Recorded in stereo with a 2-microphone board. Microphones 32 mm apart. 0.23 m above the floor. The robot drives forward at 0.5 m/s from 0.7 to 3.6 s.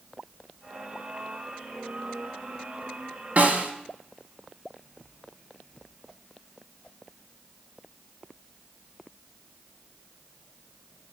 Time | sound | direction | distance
3.4 | a snare drum | 50° right (ahead or behind) | 0.7 m